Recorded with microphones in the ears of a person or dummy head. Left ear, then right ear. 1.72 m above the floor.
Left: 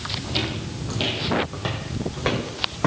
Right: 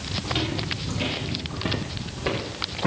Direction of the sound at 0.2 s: Centre (ahead or behind).